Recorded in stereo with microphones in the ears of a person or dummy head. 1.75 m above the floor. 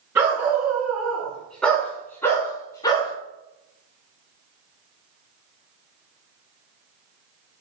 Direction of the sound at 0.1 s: 15° right (ahead or behind).